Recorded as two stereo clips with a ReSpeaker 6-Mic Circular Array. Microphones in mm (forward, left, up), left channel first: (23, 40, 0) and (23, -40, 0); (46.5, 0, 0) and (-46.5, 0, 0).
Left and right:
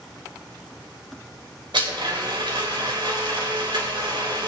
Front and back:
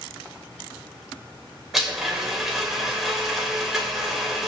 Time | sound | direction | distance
1.7 | a blender | 90° right | 3 m